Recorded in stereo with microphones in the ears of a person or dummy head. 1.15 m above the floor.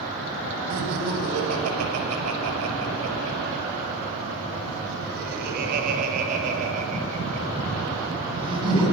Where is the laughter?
75° right (ahead or behind), 6 m; by 8.8 s 25° right (ahead or behind), 8 m.